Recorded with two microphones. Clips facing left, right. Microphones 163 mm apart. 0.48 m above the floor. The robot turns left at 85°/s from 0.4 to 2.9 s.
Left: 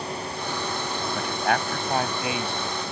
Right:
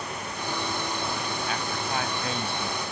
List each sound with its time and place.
1.1 s a man speaking: 110° left; by 2.8 s 30° right